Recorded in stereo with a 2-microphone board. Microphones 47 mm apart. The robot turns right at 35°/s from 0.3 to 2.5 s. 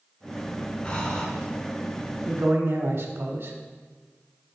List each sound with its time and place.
0.8 s breathing: 25° left (ahead or behind), 1.8 m; by 1.3 s 15° left (ahead or behind), 1.8 m
2.3 s a man speaking: 55° right (ahead or behind), 1.0 m